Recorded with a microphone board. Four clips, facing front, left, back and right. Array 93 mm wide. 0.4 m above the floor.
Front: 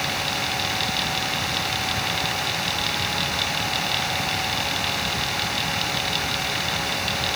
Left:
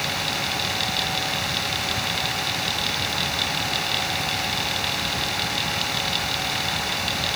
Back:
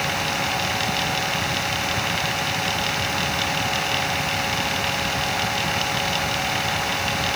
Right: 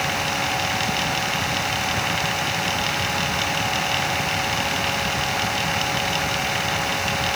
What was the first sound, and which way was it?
Only background noise.